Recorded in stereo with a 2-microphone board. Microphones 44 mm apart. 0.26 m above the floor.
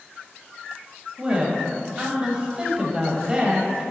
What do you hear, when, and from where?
1.2 s a woman speaking: 25° right (ahead or behind), 1.2 m